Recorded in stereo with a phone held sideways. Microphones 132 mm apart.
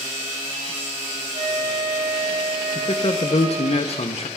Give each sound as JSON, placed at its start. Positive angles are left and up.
{"t": 1.3, "sound": "a flute", "side_deg": -65, "distance_m": 2.0}
{"t": 2.8, "sound": "a man speaking", "side_deg": 50, "distance_m": 0.7}